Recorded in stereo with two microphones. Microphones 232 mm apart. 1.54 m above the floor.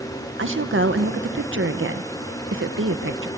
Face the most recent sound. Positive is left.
turn(degrees=-60)  # may be behind; listen again after turning